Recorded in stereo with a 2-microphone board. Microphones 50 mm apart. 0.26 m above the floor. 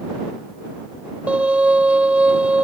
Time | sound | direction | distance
1.3 | a violin | 25° right (ahead or behind) | ?